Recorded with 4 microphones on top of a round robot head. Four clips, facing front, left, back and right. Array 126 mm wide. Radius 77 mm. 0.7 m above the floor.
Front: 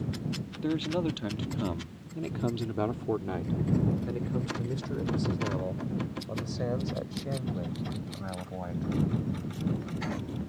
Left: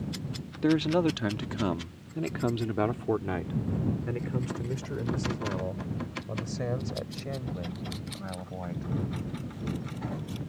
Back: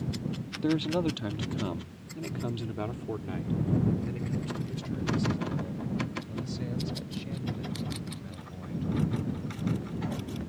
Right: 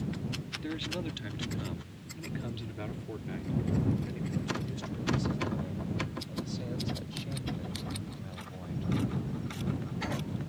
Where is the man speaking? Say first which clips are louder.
Left 14 dB, back 2 dB; 100° left; by 8.9 s 35° left.